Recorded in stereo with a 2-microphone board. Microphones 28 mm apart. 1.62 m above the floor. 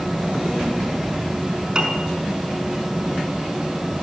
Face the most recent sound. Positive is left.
turn(degrees=-25)  # may be behind; listen again after turning